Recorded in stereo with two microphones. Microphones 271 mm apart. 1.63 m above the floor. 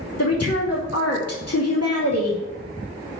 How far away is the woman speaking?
About 2.5 m.